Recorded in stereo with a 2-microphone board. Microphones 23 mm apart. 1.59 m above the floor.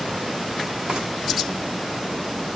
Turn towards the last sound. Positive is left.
turn(degrees=-35)  # may be behind; listen again after turning